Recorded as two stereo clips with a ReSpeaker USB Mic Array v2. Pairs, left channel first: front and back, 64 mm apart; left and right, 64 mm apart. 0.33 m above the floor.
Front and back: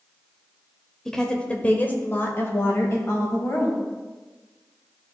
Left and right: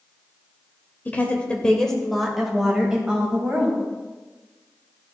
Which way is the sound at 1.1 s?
75° left.